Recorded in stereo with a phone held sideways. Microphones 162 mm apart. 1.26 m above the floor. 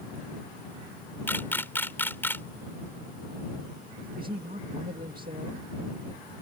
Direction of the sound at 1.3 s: 15° left (ahead or behind).